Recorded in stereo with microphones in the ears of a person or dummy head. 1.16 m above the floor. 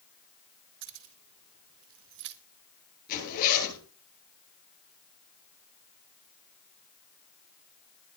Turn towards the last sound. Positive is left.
turn(degrees=45)  # may be behind; listen again after turning